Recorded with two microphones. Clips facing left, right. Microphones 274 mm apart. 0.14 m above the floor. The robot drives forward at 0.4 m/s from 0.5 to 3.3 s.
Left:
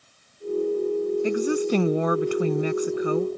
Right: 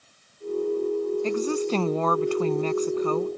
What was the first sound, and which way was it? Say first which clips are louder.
A woman speaking: left 2 dB; 15° left (ahead or behind).